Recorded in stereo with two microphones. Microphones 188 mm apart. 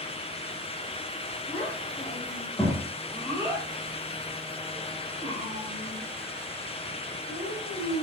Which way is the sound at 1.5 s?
25° left (ahead or behind).